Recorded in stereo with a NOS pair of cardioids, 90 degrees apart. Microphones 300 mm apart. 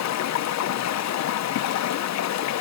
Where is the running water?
60° left, 0.9 m.